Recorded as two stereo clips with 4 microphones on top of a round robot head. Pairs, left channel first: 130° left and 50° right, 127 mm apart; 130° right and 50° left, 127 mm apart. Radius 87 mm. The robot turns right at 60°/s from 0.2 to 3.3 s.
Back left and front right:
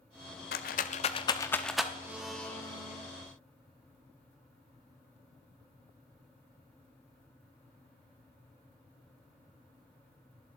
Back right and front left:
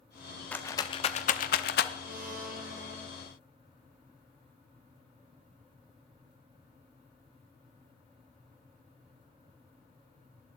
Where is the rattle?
145° left, 0.8 m; by 1.9 s 130° right, 0.8 m.